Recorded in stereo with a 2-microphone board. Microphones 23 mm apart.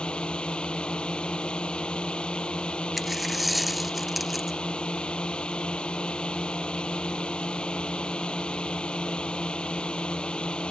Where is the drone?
45° left (ahead or behind).